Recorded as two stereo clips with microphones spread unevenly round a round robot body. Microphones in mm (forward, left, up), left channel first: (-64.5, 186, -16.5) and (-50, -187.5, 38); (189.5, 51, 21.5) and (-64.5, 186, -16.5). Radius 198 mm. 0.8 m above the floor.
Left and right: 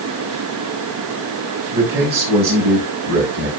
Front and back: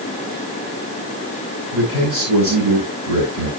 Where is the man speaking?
155° right, 4.5 m.